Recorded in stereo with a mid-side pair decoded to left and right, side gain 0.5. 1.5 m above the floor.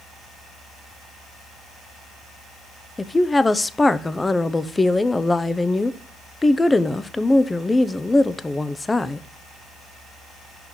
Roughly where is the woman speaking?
Ahead.